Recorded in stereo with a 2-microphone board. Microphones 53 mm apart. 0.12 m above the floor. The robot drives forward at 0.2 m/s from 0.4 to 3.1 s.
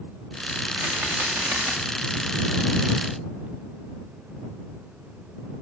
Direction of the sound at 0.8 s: 50° right (ahead or behind).